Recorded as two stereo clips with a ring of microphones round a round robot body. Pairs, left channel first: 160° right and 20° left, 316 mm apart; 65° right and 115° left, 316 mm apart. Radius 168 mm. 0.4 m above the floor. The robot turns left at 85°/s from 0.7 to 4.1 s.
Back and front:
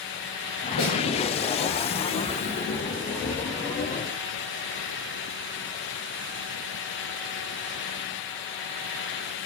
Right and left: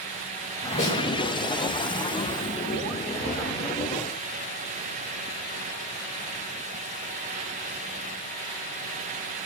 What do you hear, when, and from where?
0.8 s a snare drum: 135° right, 8 m; by 1.0 s 150° right, 8 m